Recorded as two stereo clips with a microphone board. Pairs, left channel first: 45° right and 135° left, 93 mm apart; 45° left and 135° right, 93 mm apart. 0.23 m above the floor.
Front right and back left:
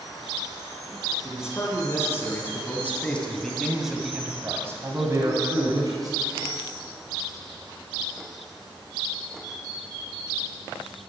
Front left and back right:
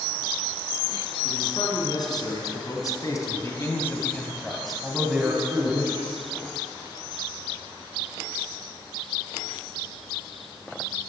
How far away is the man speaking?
About 3.5 m.